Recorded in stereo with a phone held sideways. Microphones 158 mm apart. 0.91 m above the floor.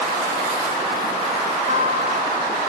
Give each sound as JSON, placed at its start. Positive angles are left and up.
{"t": 1.7, "sound": "a guitar", "side_deg": -50, "distance_m": 1.6}